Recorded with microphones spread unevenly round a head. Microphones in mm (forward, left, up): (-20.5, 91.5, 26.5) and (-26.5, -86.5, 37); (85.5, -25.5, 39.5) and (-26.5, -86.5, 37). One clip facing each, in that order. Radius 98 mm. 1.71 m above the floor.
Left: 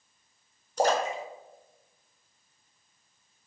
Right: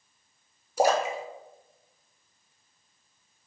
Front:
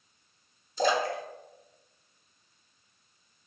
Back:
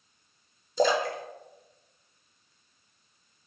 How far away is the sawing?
I don't hear sawing.